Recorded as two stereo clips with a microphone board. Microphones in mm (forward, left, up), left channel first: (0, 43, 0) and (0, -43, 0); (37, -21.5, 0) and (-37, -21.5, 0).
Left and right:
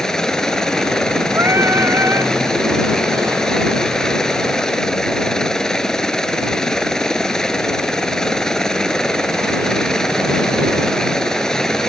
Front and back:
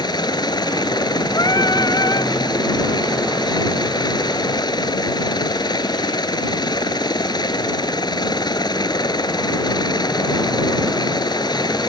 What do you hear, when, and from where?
0.0 s a helicopter: 5° left
1.3 s singing: 30° right